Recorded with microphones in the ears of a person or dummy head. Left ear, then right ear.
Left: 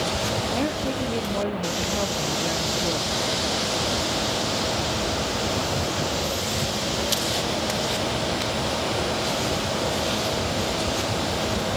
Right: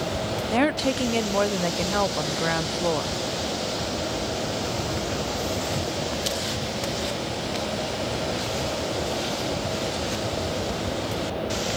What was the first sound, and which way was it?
A woman speaking, 60° right (ahead or behind).